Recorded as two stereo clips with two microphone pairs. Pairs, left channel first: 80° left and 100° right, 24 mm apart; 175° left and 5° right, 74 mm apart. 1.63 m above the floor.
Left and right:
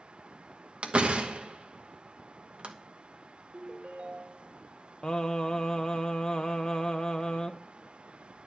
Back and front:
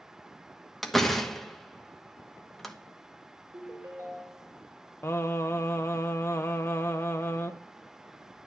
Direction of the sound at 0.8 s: 100° right.